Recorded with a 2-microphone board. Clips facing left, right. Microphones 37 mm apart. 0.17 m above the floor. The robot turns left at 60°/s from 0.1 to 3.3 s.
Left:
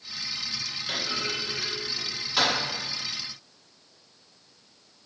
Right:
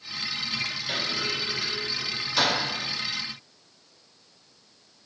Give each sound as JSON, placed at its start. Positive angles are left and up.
{"t": 0.9, "sound": "a clunk", "side_deg": -15, "distance_m": 1.6}